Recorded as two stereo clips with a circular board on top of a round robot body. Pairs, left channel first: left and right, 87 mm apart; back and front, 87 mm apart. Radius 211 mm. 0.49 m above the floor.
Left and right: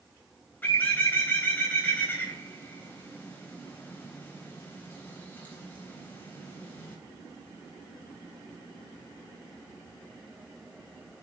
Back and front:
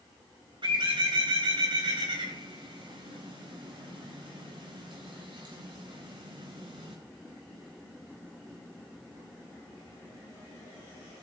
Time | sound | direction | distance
0.6 | a bird | 20° left | 4 m